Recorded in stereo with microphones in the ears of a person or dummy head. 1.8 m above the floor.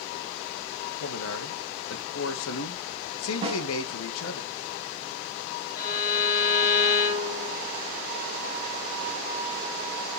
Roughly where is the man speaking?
Left.